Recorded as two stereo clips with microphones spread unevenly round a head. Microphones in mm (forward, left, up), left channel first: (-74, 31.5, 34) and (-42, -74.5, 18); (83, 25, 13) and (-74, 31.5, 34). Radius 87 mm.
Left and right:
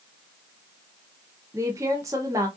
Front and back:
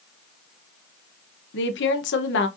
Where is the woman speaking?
Straight ahead, 0.9 m.